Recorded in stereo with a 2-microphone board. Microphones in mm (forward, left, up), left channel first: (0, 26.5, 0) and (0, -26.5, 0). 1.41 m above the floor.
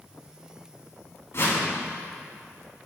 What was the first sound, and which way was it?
A whoosh, 60° left (ahead or behind).